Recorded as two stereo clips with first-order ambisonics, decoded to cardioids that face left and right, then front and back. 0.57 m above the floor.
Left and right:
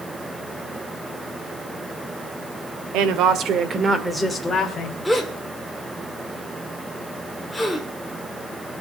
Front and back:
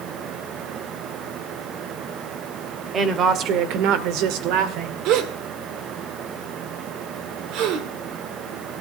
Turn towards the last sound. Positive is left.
turn(degrees=175)